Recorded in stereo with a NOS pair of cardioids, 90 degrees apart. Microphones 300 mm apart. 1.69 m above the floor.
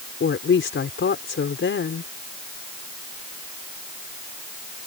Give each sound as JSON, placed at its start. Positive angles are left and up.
{"t": 0.2, "sound": "a woman speaking", "azimuth_deg": 40}